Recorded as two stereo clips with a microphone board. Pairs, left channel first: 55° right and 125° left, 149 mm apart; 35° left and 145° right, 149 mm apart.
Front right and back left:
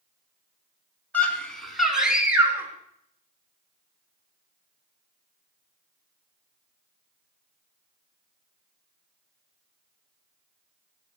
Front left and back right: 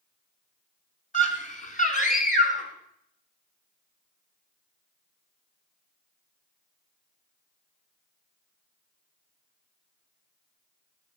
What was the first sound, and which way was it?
A scream, 20° left.